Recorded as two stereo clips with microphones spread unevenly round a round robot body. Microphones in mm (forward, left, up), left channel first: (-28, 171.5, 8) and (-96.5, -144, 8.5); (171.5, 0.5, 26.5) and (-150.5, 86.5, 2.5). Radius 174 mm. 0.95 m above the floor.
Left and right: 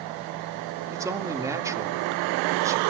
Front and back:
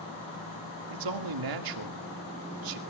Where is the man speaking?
175° left, 2 m.